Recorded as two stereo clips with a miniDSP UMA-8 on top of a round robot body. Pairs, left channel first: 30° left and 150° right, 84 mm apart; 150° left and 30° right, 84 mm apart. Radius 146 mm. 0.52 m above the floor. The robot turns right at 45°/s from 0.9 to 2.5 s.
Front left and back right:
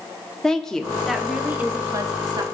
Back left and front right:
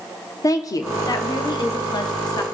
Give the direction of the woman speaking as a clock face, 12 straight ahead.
8 o'clock.